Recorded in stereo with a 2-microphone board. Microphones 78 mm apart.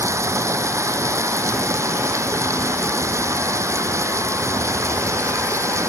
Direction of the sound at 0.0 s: 40° right (ahead or behind).